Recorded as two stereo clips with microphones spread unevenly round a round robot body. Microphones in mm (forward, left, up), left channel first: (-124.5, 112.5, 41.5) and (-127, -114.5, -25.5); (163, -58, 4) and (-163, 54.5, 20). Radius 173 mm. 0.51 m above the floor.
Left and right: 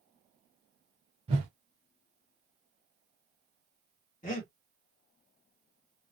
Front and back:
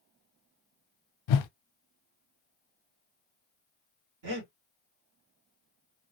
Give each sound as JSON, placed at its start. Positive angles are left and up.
{"t": 1.3, "sound": "a whoosh", "azimuth_deg": -30, "distance_m": 0.6}
{"t": 4.2, "sound": "breathing", "azimuth_deg": 145, "distance_m": 2.0}